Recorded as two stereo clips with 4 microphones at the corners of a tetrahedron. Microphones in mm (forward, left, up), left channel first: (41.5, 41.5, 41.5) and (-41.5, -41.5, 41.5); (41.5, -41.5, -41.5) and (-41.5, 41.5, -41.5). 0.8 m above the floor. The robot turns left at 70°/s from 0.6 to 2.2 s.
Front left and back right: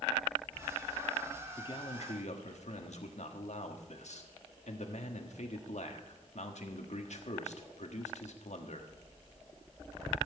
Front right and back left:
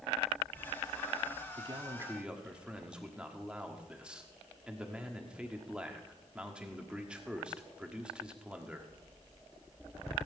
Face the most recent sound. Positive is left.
turn(degrees=55)